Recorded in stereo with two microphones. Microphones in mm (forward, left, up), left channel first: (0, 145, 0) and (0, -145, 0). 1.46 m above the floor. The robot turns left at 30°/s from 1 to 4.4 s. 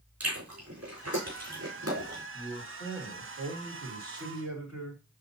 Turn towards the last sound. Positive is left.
turn(degrees=60)